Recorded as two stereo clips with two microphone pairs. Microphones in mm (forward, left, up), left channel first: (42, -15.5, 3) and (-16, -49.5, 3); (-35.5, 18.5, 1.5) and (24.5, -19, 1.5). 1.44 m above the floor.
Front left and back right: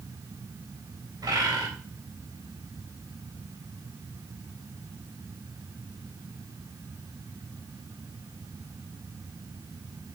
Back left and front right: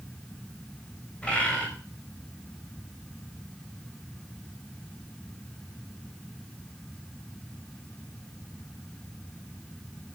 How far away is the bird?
About 3.5 m.